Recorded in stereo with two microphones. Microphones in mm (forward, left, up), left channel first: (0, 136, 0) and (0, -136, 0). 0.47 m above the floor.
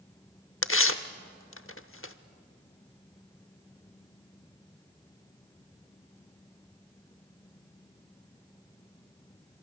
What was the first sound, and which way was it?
Tearing paper, 50° left (ahead or behind).